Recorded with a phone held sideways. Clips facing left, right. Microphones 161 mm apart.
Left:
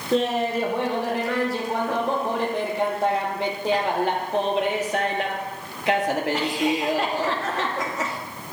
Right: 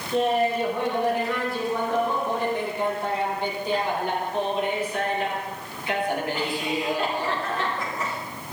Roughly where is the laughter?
Left.